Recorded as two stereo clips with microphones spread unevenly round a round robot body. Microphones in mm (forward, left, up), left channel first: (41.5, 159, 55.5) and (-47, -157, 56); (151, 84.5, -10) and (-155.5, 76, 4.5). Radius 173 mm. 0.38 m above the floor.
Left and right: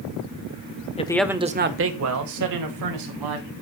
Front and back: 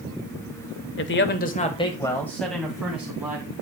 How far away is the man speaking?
About 1.1 m.